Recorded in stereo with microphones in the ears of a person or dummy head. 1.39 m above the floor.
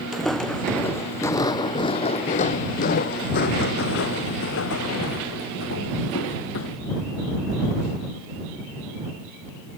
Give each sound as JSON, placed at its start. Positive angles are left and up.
{"t": 0.1, "sound": "footsteps", "side_deg": 0}